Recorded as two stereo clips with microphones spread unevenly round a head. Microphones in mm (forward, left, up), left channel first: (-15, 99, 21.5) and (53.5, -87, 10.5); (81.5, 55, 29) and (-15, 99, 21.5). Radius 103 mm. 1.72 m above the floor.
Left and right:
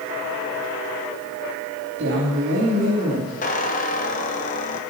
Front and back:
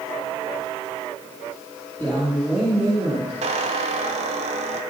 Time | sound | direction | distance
2.0 | a woman speaking | 105° right | 3.5 m
3.4 | a squeak | 155° left | 1.1 m